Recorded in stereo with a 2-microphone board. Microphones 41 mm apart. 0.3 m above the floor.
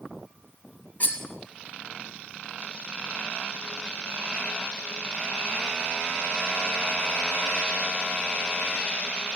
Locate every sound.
1.0 s cutlery clinking: 40° left (ahead or behind), 1.1 m